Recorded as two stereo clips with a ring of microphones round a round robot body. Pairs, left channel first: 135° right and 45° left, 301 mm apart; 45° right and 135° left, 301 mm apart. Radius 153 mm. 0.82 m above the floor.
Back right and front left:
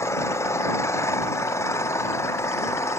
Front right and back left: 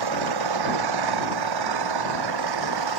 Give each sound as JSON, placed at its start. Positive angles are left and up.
{"t": 0.0, "sound": "an engine running", "azimuth_deg": 145}